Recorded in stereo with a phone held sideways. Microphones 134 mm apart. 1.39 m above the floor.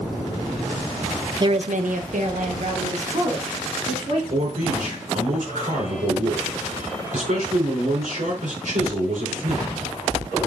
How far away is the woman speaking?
About 0.5 m.